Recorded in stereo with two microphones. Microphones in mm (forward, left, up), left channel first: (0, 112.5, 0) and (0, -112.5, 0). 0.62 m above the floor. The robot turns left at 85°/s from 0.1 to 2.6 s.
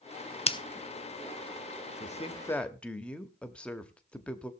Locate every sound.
0.5 s scissors: 30° left (ahead or behind), 0.6 m; by 0.6 s 20° left (ahead or behind), 0.6 m
2.0 s a woman speaking: 60° left, 1.0 m; by 4.5 s 10° left, 1.0 m